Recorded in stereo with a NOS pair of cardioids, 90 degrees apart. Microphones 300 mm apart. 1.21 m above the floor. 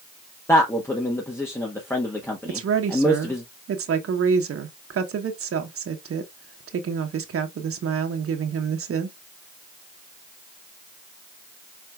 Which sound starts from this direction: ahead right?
A woman speaking, at 2.5 s.